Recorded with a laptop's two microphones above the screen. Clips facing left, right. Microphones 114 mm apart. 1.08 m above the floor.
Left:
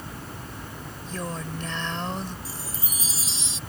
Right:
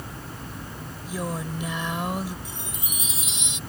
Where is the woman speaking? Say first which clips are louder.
Right 3 dB; 10° right (ahead or behind).